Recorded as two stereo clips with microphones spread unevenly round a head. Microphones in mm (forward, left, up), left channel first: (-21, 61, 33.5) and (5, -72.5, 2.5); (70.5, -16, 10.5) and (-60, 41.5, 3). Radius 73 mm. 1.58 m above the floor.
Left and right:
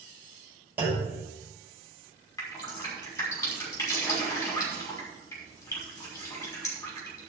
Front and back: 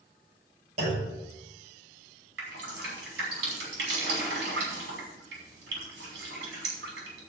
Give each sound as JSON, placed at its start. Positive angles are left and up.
{"t": 0.8, "sound": "a clunk", "azimuth_deg": -160, "distance_m": 5.0}
{"t": 2.4, "sound": "dripping", "azimuth_deg": 170, "distance_m": 5.5}